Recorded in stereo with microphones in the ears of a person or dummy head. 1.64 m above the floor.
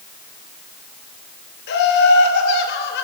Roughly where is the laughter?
Left.